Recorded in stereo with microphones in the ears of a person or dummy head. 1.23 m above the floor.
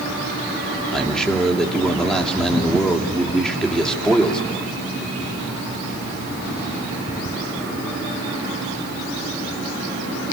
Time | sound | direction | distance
0.9 | a man speaking | centre (ahead or behind) | 3 m